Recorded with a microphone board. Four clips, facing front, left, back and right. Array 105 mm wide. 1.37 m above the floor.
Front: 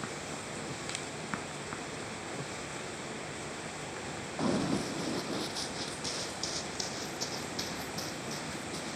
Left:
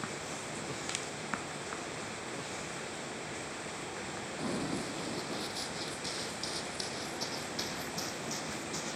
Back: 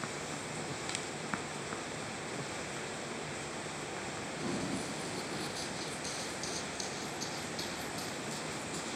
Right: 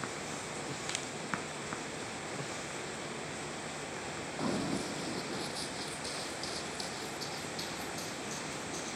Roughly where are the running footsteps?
Ahead.